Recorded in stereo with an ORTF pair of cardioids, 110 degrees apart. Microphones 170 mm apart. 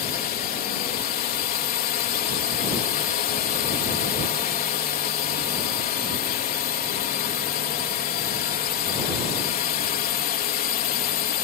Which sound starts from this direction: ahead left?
A drone, at 0.0 s.